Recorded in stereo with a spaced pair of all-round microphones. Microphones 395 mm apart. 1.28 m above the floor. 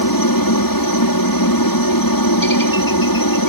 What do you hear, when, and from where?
0.0 s a helicopter: 60° left (ahead or behind)